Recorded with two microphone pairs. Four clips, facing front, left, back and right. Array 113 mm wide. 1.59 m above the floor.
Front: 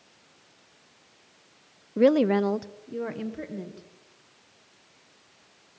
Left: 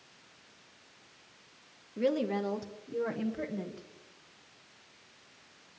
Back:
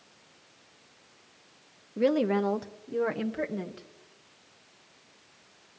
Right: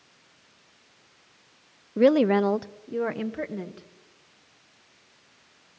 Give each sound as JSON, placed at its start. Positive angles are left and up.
{"t": 2.0, "sound": "a woman speaking", "azimuth_deg": -60, "distance_m": 0.7}